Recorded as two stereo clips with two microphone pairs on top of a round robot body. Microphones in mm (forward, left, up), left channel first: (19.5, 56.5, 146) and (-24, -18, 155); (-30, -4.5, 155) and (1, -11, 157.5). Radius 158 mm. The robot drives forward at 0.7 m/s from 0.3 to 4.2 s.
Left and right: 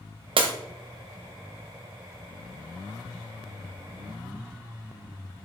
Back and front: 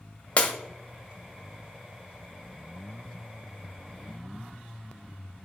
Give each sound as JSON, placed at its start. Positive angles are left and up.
{"t": 0.4, "sound": "breaking glass", "azimuth_deg": -135, "distance_m": 0.5}